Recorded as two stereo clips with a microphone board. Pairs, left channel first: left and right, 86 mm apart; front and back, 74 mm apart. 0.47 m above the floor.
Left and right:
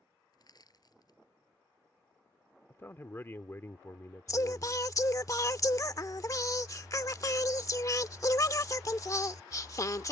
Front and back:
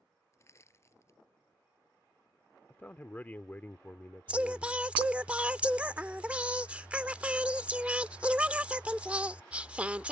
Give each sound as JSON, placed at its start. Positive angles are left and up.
{"t": 0.3, "sound": "crushing", "azimuth_deg": 50}
{"t": 2.7, "sound": "a man speaking", "azimuth_deg": 50}
{"t": 4.3, "sound": "singing", "azimuth_deg": 115}